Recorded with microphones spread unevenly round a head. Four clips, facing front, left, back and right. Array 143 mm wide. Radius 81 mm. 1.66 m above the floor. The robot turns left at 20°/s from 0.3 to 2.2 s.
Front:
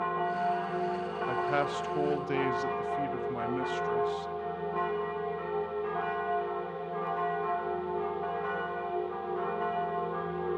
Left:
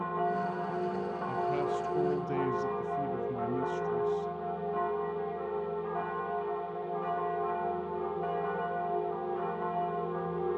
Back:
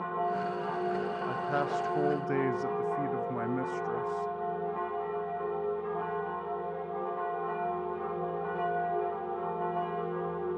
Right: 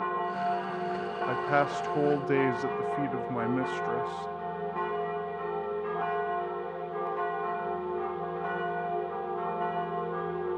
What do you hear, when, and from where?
1.3 s a man speaking: 80° right, 1.1 m; by 4.3 s 95° right, 1.1 m